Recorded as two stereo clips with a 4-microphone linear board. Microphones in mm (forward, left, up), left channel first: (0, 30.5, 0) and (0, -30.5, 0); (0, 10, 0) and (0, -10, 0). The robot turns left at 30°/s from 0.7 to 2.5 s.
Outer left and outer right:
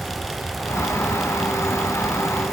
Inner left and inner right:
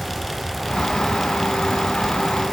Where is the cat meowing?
No cat meowing in this recording.